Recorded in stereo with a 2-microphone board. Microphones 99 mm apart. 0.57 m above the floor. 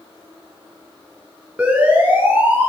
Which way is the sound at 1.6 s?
10° right (ahead or behind).